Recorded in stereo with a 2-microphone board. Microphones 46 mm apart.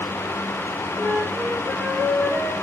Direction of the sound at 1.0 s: 20° right (ahead or behind).